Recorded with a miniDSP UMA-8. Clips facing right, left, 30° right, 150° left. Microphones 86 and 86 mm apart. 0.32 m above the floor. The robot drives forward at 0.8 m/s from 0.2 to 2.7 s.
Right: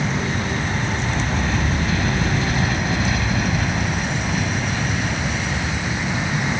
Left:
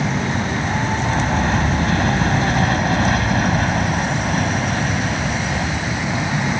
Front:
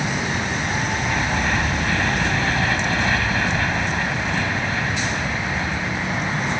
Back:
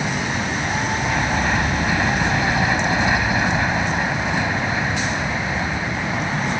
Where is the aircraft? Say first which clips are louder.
Left 2 dB, back 1 dB; 70° left; by 6.6 s 80° left.